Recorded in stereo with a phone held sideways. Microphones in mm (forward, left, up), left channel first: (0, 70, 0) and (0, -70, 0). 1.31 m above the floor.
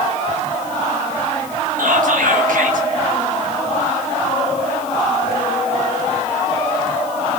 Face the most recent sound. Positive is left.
turn(degrees=-80)